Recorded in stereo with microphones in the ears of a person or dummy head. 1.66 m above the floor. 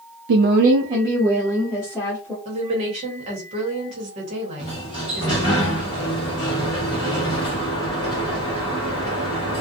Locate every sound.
0.3 s a woman speaking: 60° right (ahead or behind), 0.5 m; by 2.4 s 5° left (ahead or behind), 1.3 m
2.5 s a woman speaking: 40° right (ahead or behind), 1.1 m
4.6 s a sliding door: 20° left (ahead or behind), 0.9 m